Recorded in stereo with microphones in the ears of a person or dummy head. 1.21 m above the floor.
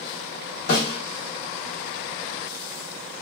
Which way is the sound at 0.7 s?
45° left (ahead or behind).